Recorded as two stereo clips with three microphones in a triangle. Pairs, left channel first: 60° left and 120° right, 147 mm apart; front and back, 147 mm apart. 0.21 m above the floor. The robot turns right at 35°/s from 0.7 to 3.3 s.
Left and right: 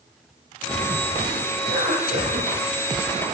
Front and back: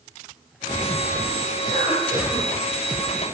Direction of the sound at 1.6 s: 135° right.